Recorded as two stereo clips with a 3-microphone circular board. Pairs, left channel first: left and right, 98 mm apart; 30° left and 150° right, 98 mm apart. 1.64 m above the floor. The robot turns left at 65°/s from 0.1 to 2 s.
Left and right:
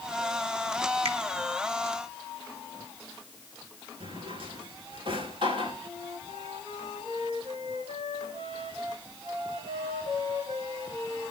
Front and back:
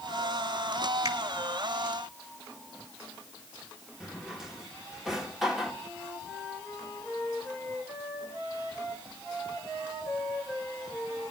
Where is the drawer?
65° right, 3 m.